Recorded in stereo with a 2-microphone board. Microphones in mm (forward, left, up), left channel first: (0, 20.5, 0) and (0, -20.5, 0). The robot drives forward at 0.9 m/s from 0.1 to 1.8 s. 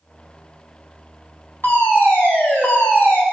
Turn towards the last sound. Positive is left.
turn(degrees=55)  # may be behind; listen again after turning